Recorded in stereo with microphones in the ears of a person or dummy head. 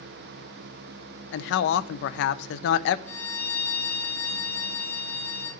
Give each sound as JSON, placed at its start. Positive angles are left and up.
{"t": 1.3, "sound": "a man speaking", "side_deg": 70, "distance_m": 0.6}
{"t": 3.1, "sound": "a violin", "side_deg": 10, "distance_m": 1.1}